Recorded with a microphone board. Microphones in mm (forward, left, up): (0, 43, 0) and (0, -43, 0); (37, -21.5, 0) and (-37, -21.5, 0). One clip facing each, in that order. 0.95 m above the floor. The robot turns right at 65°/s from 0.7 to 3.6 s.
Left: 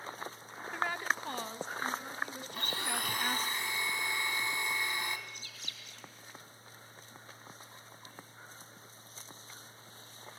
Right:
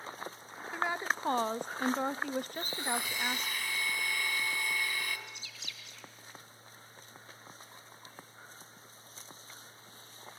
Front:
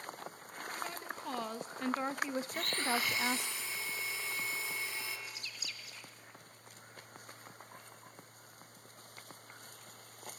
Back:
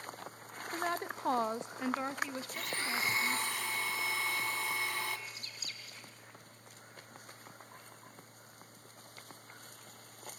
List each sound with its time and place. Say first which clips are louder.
0.7 s a woman speaking: right 1 dB, back 8 dB; 175° right, 0.8 m; by 3.5 s 10° left, 0.8 m
2.5 s a blender: right 2 dB, front 3 dB; 85° left, 2.5 m; by 5.2 s 155° left, 2.5 m
5.3 s a bird: even, front 1 dB; 135° left, 3 m